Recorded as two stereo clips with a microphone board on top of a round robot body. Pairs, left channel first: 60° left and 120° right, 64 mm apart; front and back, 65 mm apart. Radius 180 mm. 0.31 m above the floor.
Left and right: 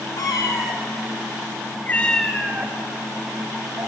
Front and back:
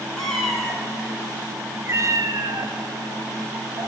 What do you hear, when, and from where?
0.2 s a cat meowing: 85° left, 3 m; by 3.9 s 155° right, 2.5 m